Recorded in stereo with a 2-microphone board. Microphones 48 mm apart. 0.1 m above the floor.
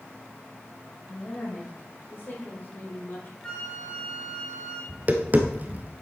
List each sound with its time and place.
1.1 s a woman speaking: 45° left (ahead or behind), 6.5 m; by 3.3 s 50° left (ahead or behind), 5.5 m
3.4 s a flute: 20° left (ahead or behind), 3 m
4.9 s tapping: 35° right (ahead or behind), 1.4 m